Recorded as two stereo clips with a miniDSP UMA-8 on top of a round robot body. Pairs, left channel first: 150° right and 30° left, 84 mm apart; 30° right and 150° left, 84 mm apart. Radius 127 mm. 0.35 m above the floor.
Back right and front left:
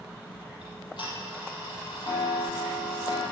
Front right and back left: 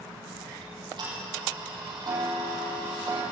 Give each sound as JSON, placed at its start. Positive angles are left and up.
{"t": 0.6, "sound": "ticking", "azimuth_deg": 180, "distance_m": 6.0}